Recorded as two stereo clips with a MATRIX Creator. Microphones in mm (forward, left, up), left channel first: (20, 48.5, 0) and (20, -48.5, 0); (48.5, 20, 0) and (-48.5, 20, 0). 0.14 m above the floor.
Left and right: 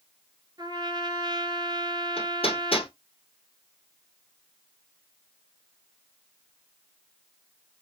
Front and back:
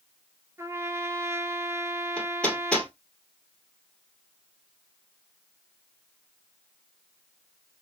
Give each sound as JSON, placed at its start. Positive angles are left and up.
{"t": 0.6, "sound": "a trumpet", "azimuth_deg": -125, "distance_m": 1.0}
{"t": 2.2, "sound": "hammering", "azimuth_deg": 80, "distance_m": 2.5}